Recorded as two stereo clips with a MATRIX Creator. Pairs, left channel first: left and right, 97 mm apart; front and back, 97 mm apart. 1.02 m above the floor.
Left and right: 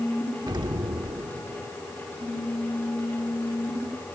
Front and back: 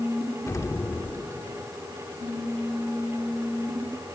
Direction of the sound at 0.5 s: 55° right.